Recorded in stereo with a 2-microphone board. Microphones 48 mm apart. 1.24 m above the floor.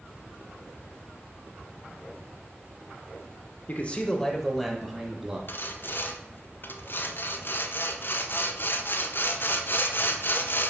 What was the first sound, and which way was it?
A man speaking, 35° left (ahead or behind).